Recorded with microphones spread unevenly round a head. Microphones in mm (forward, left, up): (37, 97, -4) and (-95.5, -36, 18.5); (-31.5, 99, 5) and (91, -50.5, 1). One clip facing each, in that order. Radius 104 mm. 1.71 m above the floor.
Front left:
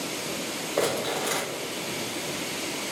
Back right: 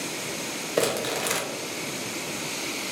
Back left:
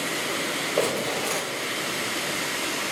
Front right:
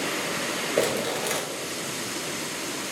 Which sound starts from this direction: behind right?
Crumpling, at 0.8 s.